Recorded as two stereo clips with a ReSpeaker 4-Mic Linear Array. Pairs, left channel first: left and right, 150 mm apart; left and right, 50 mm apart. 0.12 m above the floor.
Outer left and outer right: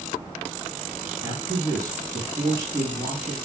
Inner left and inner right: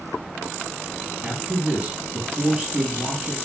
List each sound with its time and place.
1.2 s a man speaking: 25° right (ahead or behind), 3 m